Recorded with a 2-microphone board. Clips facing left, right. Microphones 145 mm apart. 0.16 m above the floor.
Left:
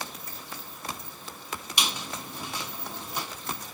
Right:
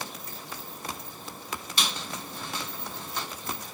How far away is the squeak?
About 0.8 m.